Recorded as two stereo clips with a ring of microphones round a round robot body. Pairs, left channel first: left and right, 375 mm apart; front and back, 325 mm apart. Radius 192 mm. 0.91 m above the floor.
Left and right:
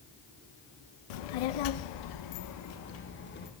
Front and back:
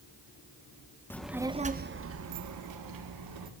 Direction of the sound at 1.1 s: 85° left.